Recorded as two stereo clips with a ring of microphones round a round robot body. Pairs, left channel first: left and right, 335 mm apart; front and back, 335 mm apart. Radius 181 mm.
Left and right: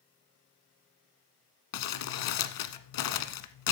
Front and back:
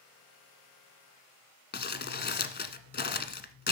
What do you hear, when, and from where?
1.7 s crumpling: 60° left, 1.2 m